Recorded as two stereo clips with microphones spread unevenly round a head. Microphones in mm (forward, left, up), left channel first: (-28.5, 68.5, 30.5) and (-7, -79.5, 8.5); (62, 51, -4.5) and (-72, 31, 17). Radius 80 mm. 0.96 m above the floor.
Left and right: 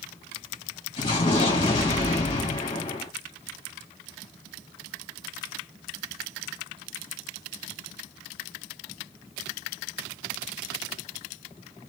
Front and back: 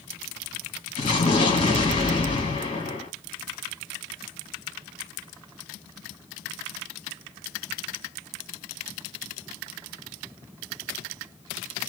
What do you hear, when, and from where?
1.0 s an explosion: 40° left, 1.3 m